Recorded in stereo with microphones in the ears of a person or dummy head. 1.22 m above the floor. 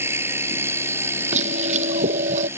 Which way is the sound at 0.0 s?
15° right (ahead or behind).